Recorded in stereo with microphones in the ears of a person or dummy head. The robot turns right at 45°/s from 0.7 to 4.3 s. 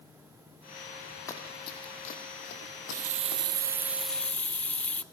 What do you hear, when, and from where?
1.3 s running footsteps: 20° left (ahead or behind), 4 m; by 3.4 s 75° left (ahead or behind), 4.5 m
2.6 s a running tap: 65° right, 0.8 m; by 5.0 s 10° left, 0.8 m